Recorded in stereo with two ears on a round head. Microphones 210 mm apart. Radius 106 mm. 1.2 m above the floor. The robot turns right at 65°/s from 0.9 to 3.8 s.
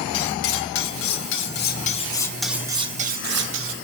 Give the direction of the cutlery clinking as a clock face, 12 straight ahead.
9 o'clock.